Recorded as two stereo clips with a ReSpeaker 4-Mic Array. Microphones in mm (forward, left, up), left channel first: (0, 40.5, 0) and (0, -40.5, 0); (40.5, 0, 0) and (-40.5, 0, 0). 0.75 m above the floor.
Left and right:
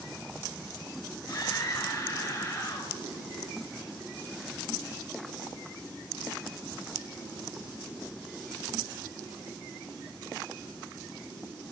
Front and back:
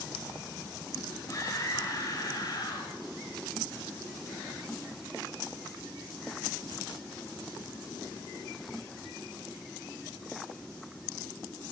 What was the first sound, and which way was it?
A scream, 50° left.